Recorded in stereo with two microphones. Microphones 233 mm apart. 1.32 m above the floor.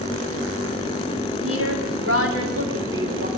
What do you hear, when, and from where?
1.4 s a woman speaking: 80° right, 4 m; by 3.3 s 60° right (ahead or behind), 4 m